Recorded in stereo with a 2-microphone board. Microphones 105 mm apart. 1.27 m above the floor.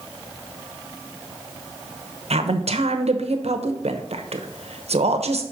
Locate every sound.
2.3 s a woman speaking: 80° right, 1.0 m